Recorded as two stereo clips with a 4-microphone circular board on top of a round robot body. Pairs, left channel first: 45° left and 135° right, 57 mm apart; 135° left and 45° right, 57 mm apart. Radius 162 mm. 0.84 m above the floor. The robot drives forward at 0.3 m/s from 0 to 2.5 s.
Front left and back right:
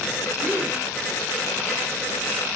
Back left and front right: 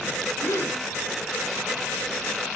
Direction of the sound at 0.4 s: 160° left.